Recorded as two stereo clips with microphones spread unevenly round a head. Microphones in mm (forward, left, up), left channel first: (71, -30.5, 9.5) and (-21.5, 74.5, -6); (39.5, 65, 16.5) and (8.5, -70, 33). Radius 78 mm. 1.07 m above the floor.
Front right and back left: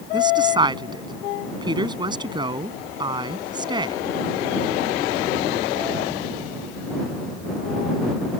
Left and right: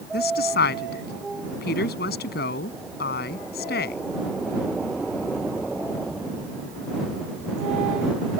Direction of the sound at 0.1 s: 70° left.